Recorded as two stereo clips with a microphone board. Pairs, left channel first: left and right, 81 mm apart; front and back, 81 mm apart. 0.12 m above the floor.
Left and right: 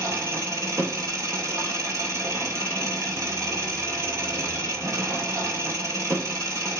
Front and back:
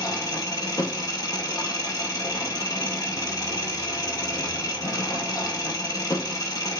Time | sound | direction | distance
0.0 | an engine running | 40° right | 2 m